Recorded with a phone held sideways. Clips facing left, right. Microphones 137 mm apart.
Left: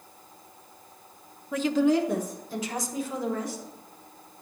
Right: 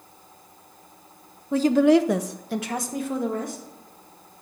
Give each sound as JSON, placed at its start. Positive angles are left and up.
{"t": 1.5, "sound": "a woman speaking", "side_deg": -25, "distance_m": 0.5}